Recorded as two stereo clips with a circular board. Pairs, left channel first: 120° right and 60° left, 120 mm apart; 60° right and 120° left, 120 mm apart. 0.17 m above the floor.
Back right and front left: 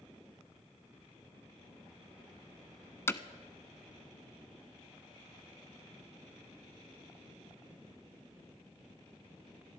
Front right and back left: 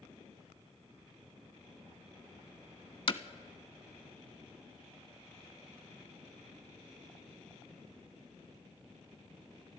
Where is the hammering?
60° right, 0.5 m.